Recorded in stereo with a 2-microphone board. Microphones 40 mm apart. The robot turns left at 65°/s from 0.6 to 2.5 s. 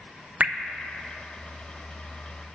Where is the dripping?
45° right (ahead or behind), 0.7 m.